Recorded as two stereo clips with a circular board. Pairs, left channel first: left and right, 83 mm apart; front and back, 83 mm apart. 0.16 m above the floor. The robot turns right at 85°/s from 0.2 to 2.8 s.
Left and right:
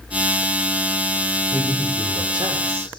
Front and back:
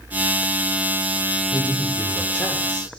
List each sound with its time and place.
1.5 s a man speaking: 135° right, 9 m; by 3.0 s 25° right, 9 m